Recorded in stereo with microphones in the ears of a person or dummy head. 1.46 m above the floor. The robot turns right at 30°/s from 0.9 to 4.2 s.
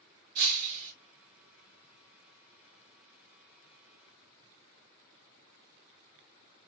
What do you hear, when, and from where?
0.3 s breaking glass: 45° right (ahead or behind), 2 m; by 0.9 s 40° right (ahead or behind), 2 m